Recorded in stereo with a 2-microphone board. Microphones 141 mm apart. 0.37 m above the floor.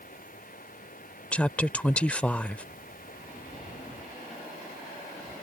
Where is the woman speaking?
10° left (ahead or behind).